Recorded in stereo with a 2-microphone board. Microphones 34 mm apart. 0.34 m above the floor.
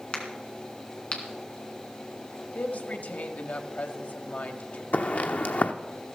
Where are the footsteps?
50° left (ahead or behind), 1.0 m.